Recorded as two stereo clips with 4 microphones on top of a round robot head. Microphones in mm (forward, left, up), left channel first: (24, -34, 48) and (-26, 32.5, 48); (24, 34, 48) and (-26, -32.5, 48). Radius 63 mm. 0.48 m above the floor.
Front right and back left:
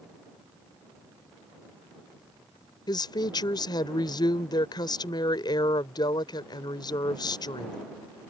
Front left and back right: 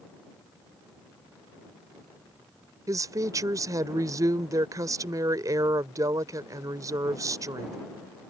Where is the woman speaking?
85° right.